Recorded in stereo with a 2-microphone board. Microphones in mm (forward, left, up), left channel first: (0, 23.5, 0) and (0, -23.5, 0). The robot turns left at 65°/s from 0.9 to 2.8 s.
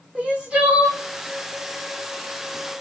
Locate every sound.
0.1 s crying: 25° right (ahead or behind), 1.5 m; by 1.0 s 30° right (ahead or behind), 1.5 m